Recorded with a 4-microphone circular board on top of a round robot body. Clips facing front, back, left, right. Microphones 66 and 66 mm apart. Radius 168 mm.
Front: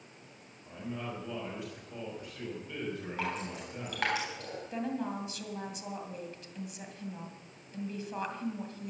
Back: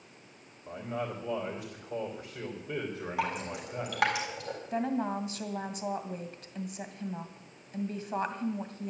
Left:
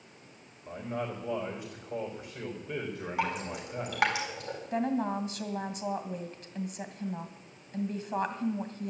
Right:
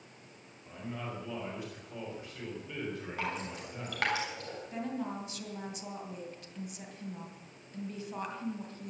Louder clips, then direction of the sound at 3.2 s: Back 5 dB, left 7 dB; 165° left.